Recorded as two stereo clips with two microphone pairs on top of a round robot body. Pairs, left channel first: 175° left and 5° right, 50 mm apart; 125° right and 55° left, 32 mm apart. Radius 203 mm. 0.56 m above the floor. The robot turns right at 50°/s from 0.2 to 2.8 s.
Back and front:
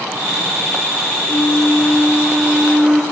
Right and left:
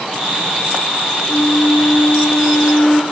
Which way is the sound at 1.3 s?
150° right.